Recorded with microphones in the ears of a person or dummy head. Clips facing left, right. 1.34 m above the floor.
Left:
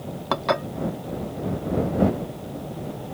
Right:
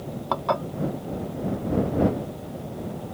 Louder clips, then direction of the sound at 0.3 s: Left 2 dB; 20° left (ahead or behind).